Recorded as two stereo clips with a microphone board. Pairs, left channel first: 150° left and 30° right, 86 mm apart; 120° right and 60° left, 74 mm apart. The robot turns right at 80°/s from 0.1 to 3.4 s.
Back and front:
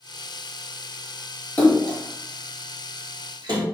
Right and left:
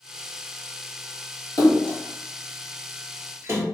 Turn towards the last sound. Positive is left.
turn(degrees=5)